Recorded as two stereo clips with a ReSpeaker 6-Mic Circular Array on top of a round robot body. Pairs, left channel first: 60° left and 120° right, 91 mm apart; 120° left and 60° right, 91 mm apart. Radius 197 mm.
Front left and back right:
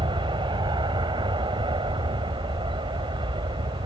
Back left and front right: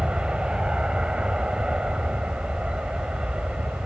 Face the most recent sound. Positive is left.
turn(degrees=-140)